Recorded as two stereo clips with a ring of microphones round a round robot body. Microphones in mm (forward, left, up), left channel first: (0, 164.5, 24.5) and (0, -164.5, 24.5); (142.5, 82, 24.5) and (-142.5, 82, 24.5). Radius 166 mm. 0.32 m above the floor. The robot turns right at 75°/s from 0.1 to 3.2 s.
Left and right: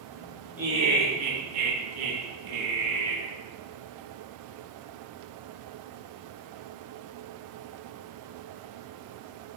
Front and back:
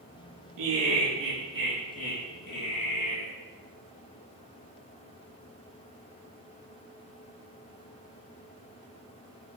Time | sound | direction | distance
0.6 | laughter | 175° right | 4 m